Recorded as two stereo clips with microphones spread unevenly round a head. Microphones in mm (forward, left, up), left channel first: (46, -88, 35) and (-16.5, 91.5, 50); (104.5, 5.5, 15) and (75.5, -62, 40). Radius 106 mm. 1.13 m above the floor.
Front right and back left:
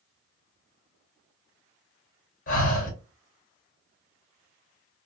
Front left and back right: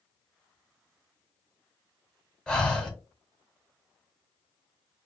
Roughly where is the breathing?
Ahead.